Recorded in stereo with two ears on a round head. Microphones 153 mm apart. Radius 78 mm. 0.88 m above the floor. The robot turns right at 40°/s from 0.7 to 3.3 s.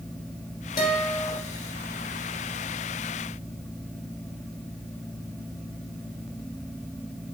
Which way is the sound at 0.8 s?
25° left (ahead or behind).